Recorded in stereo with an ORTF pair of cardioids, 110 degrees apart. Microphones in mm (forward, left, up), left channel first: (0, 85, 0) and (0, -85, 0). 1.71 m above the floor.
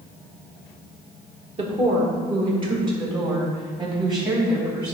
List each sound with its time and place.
1.6 s a woman speaking: 35° right, 2.0 m; by 5.0 s 25° right, 4 m